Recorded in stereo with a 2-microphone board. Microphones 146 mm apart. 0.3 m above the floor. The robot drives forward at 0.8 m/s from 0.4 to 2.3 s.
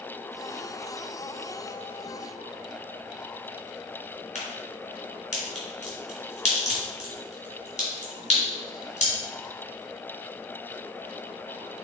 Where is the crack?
60° left (ahead or behind), 3 m.